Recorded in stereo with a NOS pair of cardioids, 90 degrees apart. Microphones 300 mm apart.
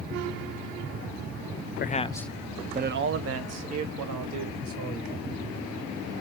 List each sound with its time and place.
1.8 s a man speaking: 30° left, 0.7 m; by 5.2 s 70° right, 2 m